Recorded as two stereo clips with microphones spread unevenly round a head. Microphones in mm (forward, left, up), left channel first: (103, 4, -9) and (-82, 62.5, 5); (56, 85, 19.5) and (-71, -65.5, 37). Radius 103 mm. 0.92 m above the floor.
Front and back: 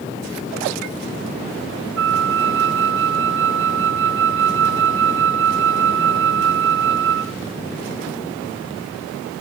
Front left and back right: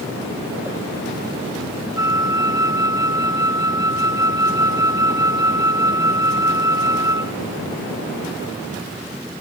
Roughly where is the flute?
Behind left.